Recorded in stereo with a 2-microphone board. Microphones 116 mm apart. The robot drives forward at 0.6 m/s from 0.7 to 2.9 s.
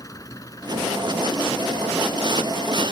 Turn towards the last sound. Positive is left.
turn(degrees=30)  # may be behind; listen again after turning